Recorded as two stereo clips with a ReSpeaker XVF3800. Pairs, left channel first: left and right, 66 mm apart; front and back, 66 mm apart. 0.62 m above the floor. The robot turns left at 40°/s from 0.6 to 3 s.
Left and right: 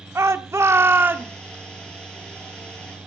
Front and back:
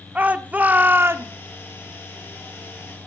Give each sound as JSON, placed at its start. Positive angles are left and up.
{"t": 0.1, "sound": "a shout", "azimuth_deg": -120, "distance_m": 1.3}